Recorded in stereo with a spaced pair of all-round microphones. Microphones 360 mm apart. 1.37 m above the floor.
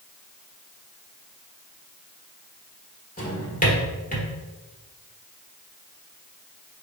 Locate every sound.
3.2 s a drawer: 20° left (ahead or behind), 1.4 m